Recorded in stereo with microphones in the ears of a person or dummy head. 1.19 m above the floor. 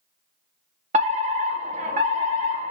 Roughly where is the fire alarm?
Right.